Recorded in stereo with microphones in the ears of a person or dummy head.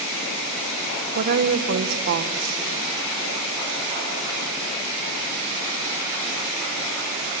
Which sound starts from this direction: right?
A woman speaking, at 1.1 s.